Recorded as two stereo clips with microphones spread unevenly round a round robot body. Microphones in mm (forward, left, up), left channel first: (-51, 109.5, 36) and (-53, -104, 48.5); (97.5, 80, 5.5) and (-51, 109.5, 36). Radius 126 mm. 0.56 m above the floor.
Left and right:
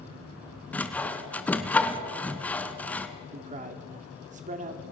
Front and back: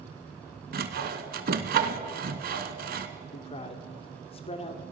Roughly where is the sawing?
Behind.